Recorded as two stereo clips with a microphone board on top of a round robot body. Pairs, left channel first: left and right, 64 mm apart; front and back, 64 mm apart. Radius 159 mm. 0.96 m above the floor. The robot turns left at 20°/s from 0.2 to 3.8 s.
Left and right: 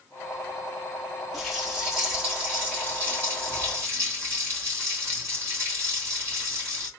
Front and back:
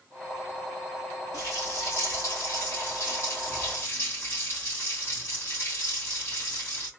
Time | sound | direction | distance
1.3 | a running tap | straight ahead | 2.5 m